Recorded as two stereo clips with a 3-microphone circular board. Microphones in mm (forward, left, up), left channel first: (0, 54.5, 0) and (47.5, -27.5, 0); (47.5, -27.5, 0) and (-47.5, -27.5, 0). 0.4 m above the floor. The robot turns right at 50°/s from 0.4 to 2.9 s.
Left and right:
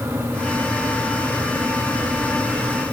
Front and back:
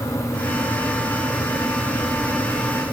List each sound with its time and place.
Only background noise.